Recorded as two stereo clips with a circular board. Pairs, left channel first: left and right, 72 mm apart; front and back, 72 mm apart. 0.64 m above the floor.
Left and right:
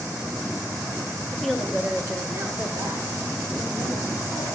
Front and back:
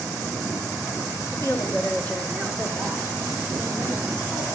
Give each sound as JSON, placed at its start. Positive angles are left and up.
{"t": 1.3, "sound": "a woman speaking", "azimuth_deg": 10, "distance_m": 1.0}